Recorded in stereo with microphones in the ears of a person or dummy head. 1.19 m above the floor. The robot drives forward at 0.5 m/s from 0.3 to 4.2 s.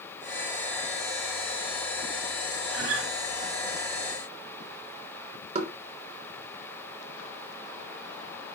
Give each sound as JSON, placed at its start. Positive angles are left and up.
{"t": 2.7, "sound": "a guitar", "side_deg": -75, "distance_m": 3.0}
{"t": 5.5, "sound": "knocking", "side_deg": -45, "distance_m": 2.0}